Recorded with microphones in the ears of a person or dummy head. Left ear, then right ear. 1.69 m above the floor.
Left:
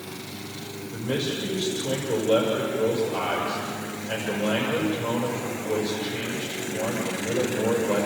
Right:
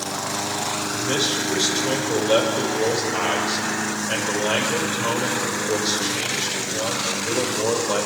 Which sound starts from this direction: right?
A man speaking, at 0.9 s.